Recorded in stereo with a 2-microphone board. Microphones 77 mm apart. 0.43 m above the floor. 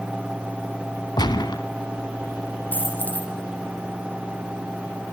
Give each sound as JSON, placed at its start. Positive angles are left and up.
{"t": 1.2, "sound": "a gunshot", "side_deg": 65, "distance_m": 1.2}
{"t": 2.7, "sound": "a dropped coin", "side_deg": 25, "distance_m": 4.5}